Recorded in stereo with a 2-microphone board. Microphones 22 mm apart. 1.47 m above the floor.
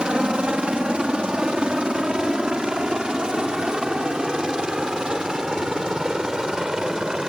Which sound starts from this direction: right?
A helicopter, at 0.0 s.